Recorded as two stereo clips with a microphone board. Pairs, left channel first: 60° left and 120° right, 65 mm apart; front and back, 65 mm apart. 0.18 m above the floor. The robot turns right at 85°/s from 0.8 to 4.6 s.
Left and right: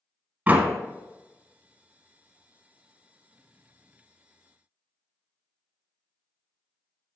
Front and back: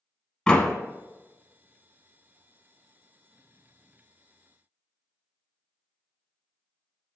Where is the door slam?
75° right, 0.8 m.